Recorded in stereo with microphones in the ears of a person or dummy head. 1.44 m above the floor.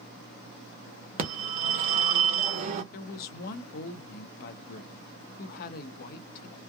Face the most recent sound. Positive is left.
turn(degrees=55)  # may be behind; listen again after turning